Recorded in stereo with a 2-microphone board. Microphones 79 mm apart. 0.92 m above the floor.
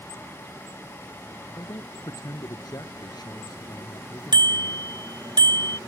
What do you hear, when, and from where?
1.6 s a man speaking: 50° left (ahead or behind); by 4.9 s 60° left (ahead or behind)
4.3 s a bicycle bell: 65° right (ahead or behind)